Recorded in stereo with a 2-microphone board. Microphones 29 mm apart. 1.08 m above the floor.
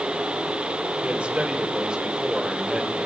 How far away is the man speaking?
About 4 m.